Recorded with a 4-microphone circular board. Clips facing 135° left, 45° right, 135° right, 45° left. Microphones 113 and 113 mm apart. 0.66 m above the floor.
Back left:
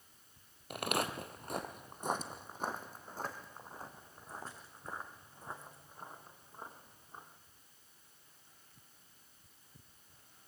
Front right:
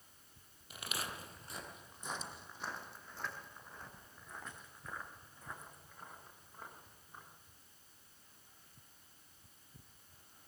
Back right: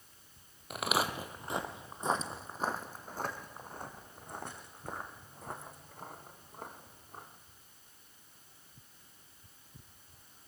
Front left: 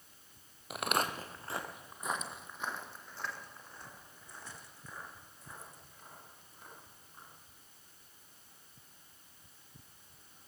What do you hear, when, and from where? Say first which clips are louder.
0.7 s footsteps: back left 9 dB, back right 1 dB; 135° left, 1.2 m; by 7.3 s 160° right, 4.5 m